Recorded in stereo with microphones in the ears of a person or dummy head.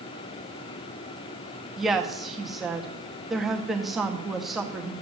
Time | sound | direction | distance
1.8 | a woman speaking | centre (ahead or behind) | 1.9 m